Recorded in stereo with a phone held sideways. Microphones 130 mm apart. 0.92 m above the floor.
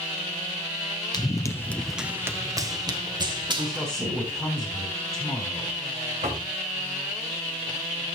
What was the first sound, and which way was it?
Running footsteps, 30° left (ahead or behind).